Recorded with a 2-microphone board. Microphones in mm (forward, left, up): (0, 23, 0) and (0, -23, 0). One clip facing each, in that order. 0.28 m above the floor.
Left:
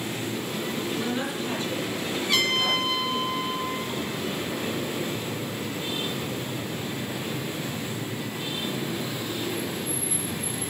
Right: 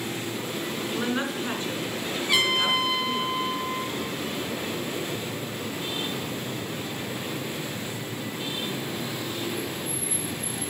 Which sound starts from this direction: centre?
A trumpet, at 2.3 s.